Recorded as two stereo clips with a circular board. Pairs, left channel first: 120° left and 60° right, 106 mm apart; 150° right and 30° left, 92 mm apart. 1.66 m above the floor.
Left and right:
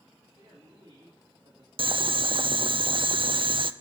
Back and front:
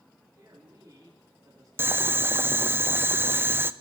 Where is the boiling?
35° right, 0.5 m.